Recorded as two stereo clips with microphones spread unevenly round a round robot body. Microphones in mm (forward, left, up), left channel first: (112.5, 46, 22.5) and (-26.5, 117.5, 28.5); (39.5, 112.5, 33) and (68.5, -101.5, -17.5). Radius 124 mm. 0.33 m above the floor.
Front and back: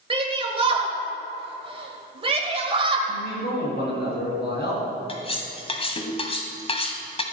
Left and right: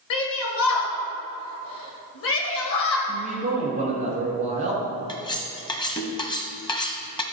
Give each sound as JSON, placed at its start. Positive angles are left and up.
{"t": 0.1, "sound": "a shout", "azimuth_deg": 110, "distance_m": 1.7}
{"t": 3.1, "sound": "a man speaking", "azimuth_deg": -30, "distance_m": 4.0}
{"t": 5.1, "sound": "cutlery clinking", "azimuth_deg": 25, "distance_m": 1.4}